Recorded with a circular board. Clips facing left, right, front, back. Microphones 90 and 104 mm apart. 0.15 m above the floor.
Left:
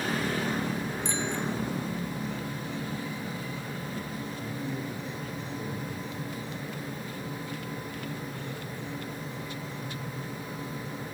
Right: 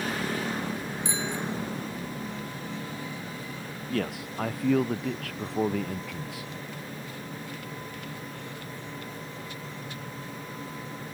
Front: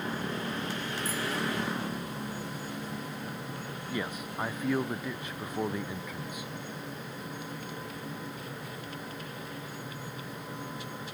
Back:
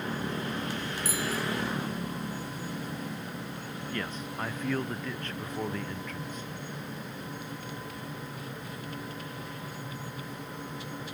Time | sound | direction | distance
1.1 | a bicycle bell | 170° right | ?
3.9 | a man speaking | 80° right | ?